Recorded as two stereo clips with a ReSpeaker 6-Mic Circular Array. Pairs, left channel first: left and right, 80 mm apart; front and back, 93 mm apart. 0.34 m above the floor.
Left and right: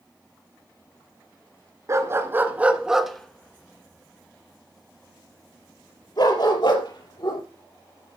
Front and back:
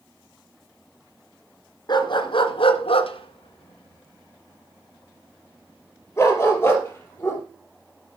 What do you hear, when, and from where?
1.9 s a dog barking: 40° right, 1.7 m; by 7.4 s 65° left, 4 m